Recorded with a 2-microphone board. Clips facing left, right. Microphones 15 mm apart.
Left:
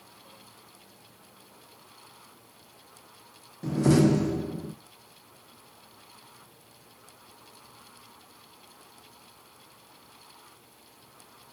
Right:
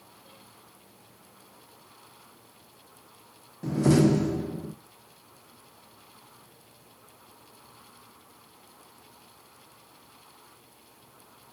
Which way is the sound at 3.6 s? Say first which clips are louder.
Even; 5° right (ahead or behind).